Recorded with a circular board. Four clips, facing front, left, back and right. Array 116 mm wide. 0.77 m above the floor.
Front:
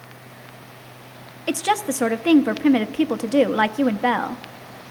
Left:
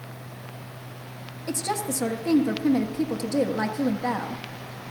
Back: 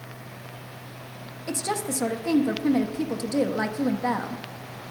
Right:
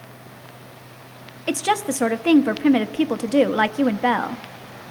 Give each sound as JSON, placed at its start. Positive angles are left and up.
{"t": 1.5, "sound": "a woman speaking", "azimuth_deg": -50, "distance_m": 0.8}